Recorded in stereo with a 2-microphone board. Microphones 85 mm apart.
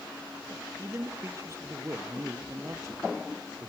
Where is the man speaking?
35° right (ahead or behind), 2.5 m.